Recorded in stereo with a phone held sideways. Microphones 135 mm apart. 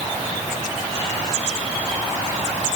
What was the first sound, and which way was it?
Only background noise.